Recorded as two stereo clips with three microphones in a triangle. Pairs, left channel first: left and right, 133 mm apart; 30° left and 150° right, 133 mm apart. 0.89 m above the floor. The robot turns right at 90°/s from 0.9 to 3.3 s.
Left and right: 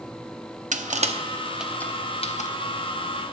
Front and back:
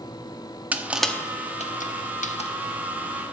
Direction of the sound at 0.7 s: 70° right.